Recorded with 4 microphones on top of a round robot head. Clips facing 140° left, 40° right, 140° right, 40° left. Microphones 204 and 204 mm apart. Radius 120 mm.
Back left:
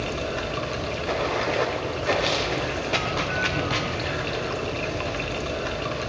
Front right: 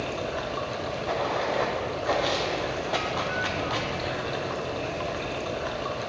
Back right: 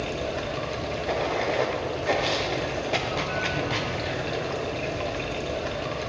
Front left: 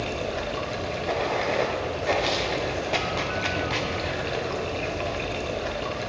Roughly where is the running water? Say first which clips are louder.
Back left 2 dB, even; behind left.